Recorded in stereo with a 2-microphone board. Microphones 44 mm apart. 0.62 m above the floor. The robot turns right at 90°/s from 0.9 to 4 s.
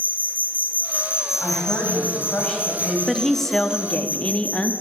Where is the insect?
50° right, 0.9 m; by 4.8 s 135° right, 0.9 m.